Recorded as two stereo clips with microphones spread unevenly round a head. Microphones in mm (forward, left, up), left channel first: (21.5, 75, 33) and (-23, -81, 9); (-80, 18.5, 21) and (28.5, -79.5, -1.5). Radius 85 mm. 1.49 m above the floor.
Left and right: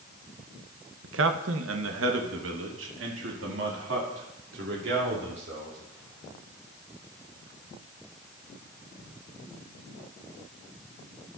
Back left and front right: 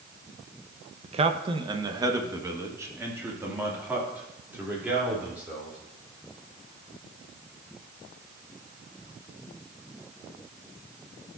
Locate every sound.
1.0 s a man speaking: 90° right, 0.8 m; by 5.8 s 125° right, 3.5 m